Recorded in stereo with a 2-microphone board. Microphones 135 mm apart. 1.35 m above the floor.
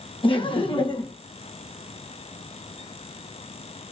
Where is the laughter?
40° left (ahead or behind), 0.9 m.